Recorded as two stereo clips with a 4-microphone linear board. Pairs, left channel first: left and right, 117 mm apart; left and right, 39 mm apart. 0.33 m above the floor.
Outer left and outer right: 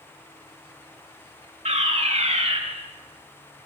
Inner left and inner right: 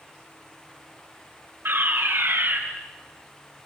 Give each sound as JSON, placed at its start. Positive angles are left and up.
{"t": 1.6, "sound": "a fire alarm", "side_deg": -65, "distance_m": 5.0}